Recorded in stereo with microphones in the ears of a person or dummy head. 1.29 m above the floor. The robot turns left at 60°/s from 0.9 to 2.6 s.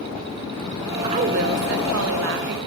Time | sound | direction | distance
1.0 | a woman speaking | 30° right | 1.1 m